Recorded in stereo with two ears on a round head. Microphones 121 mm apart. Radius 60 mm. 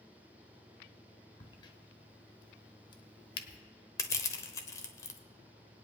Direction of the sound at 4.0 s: 25° left (ahead or behind).